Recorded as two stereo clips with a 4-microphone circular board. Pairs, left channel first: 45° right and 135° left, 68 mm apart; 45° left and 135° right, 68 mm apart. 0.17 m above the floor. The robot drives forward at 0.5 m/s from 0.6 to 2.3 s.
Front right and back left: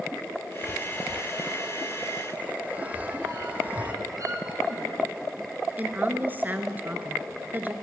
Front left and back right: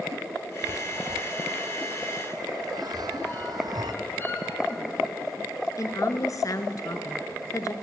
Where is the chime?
125° right, 0.6 m; by 3.9 s 155° right, 1.3 m.